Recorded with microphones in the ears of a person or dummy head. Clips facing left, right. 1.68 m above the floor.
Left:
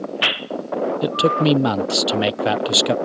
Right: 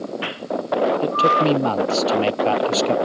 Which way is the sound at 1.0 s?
20° left (ahead or behind).